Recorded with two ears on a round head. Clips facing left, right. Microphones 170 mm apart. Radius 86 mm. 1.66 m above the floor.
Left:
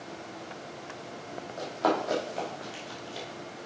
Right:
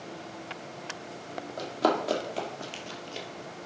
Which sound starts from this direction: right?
Running footsteps, at 1.6 s.